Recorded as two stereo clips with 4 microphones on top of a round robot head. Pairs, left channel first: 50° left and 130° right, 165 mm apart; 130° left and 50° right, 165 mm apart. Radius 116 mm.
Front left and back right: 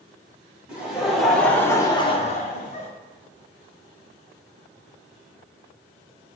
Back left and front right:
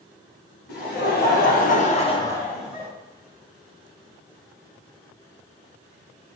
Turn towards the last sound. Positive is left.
turn(degrees=25)